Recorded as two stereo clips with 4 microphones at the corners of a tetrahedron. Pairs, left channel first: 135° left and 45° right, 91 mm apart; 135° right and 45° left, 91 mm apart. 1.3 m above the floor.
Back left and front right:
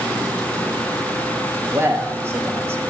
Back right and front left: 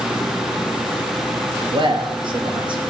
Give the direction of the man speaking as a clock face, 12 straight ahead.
11 o'clock.